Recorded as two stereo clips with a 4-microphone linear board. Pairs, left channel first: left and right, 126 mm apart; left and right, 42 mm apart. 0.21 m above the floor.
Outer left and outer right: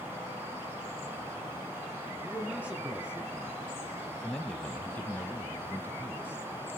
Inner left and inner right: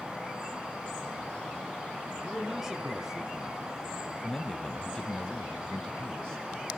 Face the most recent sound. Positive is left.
turn(degrees=20)  # may be behind; listen again after turning